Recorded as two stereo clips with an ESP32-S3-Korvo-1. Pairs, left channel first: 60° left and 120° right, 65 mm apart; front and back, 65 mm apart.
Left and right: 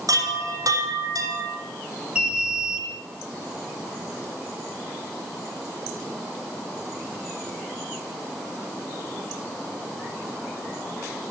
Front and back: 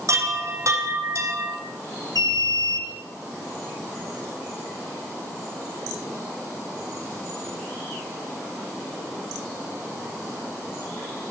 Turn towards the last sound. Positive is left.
turn(degrees=165)